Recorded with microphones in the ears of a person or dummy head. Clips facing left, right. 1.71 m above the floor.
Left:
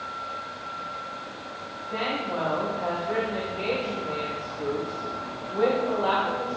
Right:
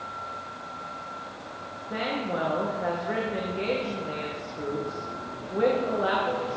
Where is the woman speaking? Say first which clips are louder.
Even; 25° right (ahead or behind), 1.9 m.